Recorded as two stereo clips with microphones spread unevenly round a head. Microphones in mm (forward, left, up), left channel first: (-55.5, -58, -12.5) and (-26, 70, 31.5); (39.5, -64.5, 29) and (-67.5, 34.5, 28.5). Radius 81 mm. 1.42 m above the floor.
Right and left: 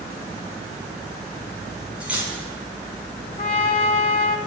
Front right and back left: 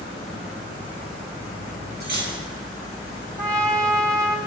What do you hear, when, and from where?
2.0 s cutlery clinking: 155° left, 7.5 m
3.4 s a trumpet: 155° right, 2.5 m